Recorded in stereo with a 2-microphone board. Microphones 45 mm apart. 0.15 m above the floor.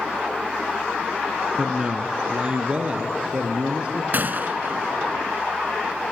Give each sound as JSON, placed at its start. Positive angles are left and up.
{"t": 1.6, "sound": "a man speaking", "side_deg": -20, "distance_m": 1.3}
{"t": 4.1, "sound": "a gunshot", "side_deg": -50, "distance_m": 0.5}